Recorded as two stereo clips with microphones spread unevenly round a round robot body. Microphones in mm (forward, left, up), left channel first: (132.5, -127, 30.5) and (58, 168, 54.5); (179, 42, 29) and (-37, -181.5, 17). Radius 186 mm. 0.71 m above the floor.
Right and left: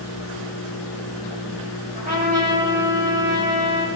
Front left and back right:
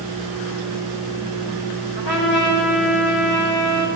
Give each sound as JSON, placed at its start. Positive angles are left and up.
{"t": 1.9, "sound": "a trumpet", "azimuth_deg": 45, "distance_m": 2.5}